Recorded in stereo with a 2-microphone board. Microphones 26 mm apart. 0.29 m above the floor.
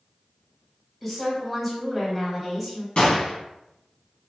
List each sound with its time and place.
1.0 s a woman speaking: 5° left (ahead or behind), 1.5 m
3.0 s a gunshot: 45° left (ahead or behind), 1.2 m